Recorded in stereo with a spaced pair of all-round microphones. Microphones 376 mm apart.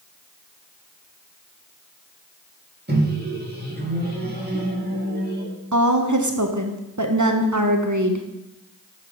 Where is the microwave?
25° right (ahead or behind), 1.8 m.